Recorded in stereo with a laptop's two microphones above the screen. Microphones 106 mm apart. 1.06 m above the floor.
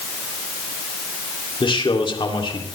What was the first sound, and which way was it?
A man speaking, 55° left (ahead or behind).